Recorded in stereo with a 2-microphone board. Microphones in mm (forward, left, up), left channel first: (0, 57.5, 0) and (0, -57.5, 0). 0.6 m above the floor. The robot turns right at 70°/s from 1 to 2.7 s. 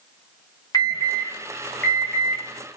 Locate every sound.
0.7 s an alarm: 35° left (ahead or behind), 0.8 m; by 2.4 s 10° right (ahead or behind), 0.8 m